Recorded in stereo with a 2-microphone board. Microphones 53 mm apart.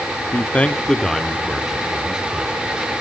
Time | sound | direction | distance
0.3 | a man speaking | 35° left (ahead or behind) | 0.7 m